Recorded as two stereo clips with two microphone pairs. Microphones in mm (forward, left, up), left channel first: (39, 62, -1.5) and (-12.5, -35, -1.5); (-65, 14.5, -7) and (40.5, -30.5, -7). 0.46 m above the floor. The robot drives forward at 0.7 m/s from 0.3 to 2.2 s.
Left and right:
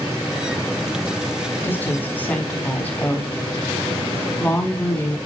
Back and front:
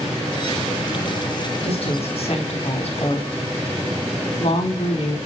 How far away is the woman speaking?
About 4.5 m.